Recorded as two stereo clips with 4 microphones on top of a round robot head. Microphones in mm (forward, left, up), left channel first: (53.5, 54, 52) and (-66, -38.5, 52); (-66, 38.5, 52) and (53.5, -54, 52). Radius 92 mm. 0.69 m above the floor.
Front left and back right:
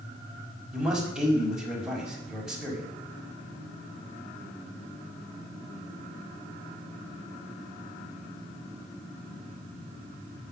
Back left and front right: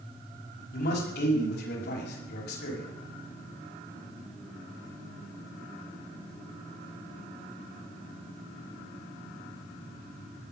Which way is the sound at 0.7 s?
130° left.